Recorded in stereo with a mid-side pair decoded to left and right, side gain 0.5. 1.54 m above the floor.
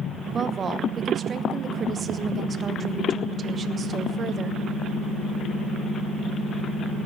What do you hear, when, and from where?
0.3 s a woman speaking: 40° right, 1.0 m